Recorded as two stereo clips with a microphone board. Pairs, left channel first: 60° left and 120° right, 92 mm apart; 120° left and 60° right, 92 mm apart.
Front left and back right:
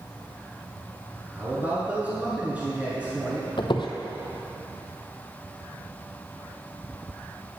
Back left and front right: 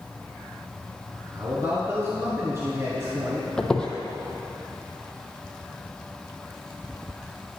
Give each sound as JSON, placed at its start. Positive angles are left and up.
{"t": 1.3, "sound": "a man speaking", "azimuth_deg": -70, "distance_m": 1.6}
{"t": 3.6, "sound": "a squeak", "azimuth_deg": 40, "distance_m": 0.9}